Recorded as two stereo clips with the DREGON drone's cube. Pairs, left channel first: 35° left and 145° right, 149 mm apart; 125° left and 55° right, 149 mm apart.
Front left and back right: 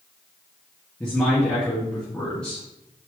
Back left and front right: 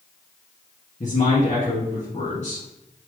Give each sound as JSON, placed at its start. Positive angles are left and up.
{"t": 1.0, "sound": "a man speaking", "azimuth_deg": 115, "distance_m": 2.5}